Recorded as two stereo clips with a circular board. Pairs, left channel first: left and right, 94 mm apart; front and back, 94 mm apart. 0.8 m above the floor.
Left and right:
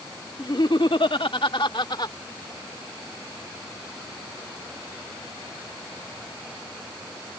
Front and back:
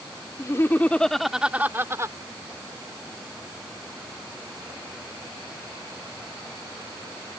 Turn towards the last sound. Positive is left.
turn(degrees=125)